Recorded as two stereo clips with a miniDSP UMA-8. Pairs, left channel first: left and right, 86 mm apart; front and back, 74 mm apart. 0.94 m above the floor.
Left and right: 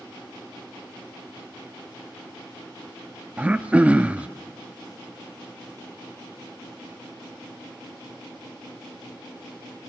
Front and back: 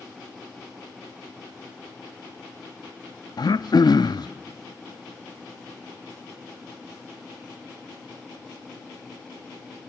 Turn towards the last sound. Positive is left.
turn(degrees=-15)